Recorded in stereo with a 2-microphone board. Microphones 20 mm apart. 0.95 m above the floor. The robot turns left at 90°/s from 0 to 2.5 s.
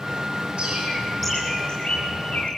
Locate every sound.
0.6 s a bird: 55° right (ahead or behind), 7.5 m; by 2.5 s 65° left (ahead or behind), 7.5 m